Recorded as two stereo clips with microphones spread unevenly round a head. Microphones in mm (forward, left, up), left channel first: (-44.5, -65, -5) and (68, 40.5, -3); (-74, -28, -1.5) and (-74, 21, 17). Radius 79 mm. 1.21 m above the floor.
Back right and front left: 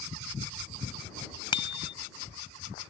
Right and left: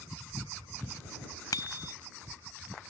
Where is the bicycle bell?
80° right.